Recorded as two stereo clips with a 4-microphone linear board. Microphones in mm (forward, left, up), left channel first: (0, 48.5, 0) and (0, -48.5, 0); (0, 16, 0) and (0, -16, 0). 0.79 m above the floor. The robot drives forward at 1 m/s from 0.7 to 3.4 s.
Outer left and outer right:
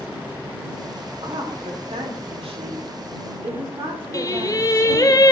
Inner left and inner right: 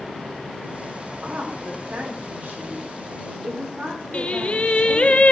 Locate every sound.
1.2 s a woman speaking: 65° right (ahead or behind), 1.9 m; by 5.1 s 50° right (ahead or behind), 2.5 m
4.1 s singing: 35° left (ahead or behind), 0.6 m